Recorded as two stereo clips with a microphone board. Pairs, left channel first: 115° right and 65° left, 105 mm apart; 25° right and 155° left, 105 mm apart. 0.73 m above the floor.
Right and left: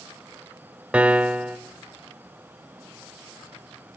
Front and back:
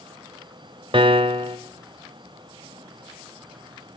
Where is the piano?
145° left, 0.6 m.